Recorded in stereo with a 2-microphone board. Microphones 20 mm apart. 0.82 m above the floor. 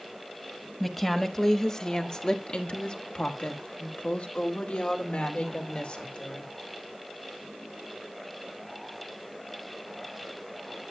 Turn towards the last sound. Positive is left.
turn(degrees=70)  # may be behind; listen again after turning